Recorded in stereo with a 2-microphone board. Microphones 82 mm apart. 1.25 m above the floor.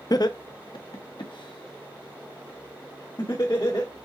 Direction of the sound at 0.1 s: 50° left (ahead or behind).